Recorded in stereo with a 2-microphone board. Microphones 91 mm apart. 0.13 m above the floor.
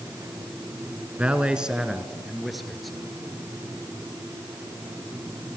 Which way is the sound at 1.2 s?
15° right (ahead or behind).